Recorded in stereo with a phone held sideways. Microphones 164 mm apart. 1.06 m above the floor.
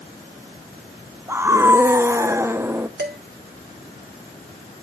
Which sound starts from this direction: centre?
A scream, at 1.3 s.